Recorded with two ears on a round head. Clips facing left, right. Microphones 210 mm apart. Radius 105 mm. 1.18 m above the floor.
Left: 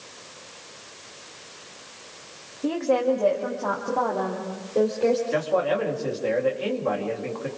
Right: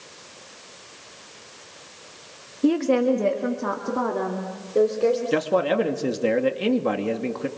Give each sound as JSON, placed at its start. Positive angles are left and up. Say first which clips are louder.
{"t": 2.6, "sound": "a woman speaking", "louder": "right 3 dB", "side_deg": -40, "distance_m": 1.7}
{"t": 5.3, "sound": "a man speaking", "louder": "right 2 dB", "side_deg": -50, "distance_m": 2.5}